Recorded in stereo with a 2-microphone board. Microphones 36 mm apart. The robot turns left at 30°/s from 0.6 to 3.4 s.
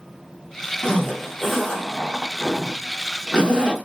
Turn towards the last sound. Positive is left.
turn(degrees=-20)  # may be behind; listen again after turning